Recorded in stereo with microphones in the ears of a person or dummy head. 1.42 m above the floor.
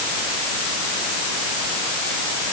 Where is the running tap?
No running tap in this recording.